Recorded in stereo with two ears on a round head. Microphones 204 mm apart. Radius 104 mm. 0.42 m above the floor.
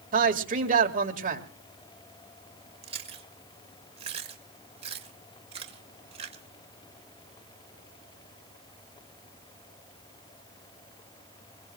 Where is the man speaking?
35° right (ahead or behind), 1.9 m.